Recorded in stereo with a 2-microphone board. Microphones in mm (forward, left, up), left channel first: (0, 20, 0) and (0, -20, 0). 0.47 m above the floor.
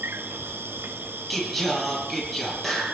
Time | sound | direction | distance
0.0 | an insect | 65° right (ahead or behind) | 1.4 m
1.3 | singing | centre (ahead or behind) | 9 m